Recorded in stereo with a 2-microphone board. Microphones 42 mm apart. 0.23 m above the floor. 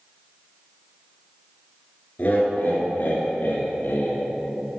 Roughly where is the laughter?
Left.